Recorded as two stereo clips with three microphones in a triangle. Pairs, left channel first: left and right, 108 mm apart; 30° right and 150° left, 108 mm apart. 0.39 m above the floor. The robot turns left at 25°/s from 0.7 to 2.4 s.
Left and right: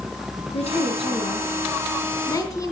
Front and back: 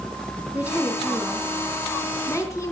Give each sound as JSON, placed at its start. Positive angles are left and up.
{"t": 0.5, "sound": "a woman speaking", "azimuth_deg": 75, "distance_m": 4.0}